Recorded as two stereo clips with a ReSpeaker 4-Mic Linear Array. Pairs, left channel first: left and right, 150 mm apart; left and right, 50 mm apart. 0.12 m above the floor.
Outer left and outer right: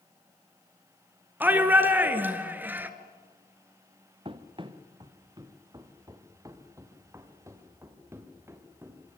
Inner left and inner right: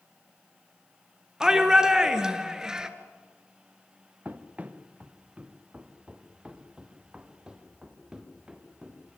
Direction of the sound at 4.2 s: 35° right (ahead or behind).